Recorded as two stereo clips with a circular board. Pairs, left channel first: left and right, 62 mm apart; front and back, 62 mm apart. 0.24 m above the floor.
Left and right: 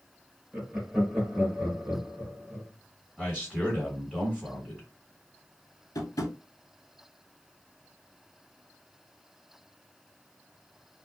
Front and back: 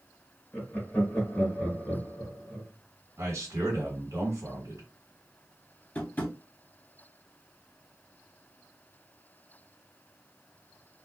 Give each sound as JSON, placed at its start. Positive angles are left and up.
{"t": 0.5, "sound": "laughter", "azimuth_deg": -50, "distance_m": 1.2}
{"t": 3.2, "sound": "a man speaking", "azimuth_deg": -160, "distance_m": 1.7}
{"t": 6.0, "sound": "tapping", "azimuth_deg": 65, "distance_m": 0.7}